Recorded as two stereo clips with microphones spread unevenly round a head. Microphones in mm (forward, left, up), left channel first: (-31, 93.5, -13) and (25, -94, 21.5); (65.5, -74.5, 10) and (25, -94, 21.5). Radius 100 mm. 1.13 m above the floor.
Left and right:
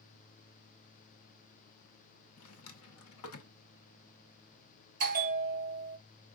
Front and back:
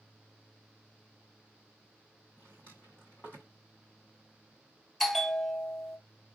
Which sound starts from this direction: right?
A bell, at 5.0 s.